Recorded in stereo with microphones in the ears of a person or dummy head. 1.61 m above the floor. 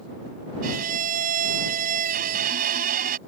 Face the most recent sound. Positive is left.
turn(degrees=-55)  # may be behind; listen again after turning